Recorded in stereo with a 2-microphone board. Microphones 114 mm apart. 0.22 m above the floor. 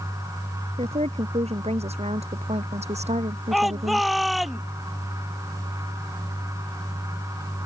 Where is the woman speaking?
60° right (ahead or behind); by 4.1 s 70° right (ahead or behind).